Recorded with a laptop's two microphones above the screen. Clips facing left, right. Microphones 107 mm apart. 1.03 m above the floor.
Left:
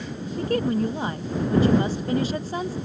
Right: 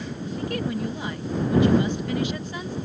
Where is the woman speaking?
35° left (ahead or behind).